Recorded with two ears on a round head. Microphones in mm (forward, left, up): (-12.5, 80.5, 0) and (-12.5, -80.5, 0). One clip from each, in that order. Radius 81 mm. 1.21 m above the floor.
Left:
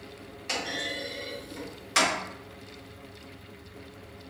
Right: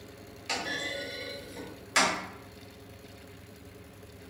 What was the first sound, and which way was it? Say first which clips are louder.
A clunk: left 1 dB; centre (ahead or behind).